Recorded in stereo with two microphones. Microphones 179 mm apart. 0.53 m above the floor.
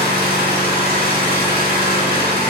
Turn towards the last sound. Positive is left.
turn(degrees=-60)  # may be behind; listen again after turning